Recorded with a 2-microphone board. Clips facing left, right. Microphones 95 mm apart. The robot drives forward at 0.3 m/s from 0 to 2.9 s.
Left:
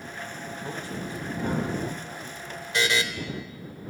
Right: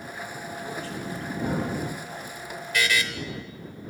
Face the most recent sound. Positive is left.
turn(degrees=25)  # may be behind; listen again after turning